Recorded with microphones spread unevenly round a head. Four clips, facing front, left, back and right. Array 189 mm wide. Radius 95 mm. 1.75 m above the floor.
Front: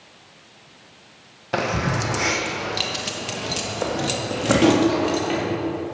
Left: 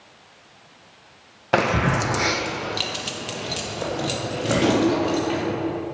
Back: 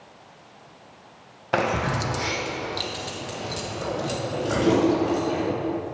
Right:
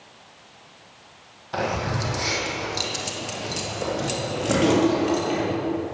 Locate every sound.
1.5 s keys jangling: 95° left, 1.1 m; by 5.4 s 5° right, 3.5 m